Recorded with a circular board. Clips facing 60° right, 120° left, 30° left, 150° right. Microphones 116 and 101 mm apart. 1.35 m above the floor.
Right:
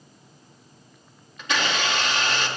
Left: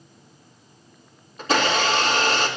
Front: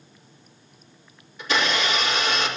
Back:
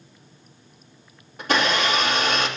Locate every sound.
1.4 s a blender: 175° left, 3 m